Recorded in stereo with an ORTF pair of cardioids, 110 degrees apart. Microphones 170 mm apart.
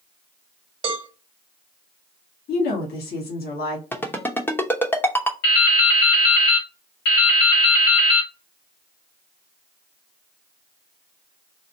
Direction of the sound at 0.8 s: 30° right.